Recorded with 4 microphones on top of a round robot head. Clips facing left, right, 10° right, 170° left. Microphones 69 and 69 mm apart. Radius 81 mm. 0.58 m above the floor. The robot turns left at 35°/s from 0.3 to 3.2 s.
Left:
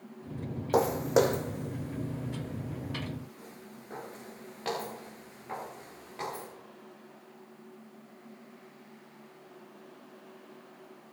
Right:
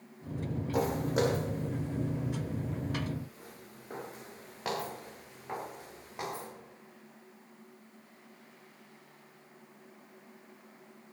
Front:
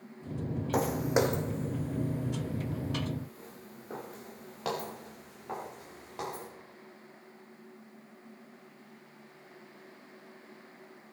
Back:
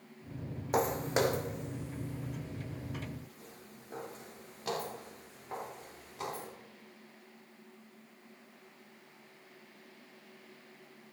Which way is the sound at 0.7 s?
85° left.